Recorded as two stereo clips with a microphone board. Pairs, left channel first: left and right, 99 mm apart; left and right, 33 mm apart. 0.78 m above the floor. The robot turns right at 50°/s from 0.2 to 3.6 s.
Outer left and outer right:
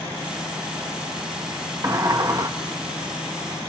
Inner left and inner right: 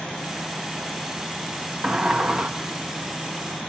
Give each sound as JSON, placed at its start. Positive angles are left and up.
{"t": 1.8, "sound": "a sliding door", "azimuth_deg": -120, "distance_m": 0.6}